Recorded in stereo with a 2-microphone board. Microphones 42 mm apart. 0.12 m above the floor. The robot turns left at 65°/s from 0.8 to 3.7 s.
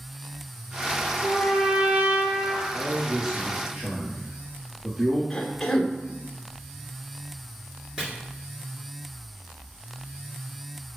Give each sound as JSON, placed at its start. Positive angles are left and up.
{"t": 1.2, "sound": "a trumpet", "azimuth_deg": 15, "distance_m": 2.5}
{"t": 2.7, "sound": "a man speaking", "side_deg": -60, "distance_m": 3.0}
{"t": 5.3, "sound": "a cough", "side_deg": 5, "distance_m": 1.2}
{"t": 8.0, "sound": "chopping", "side_deg": -15, "distance_m": 1.7}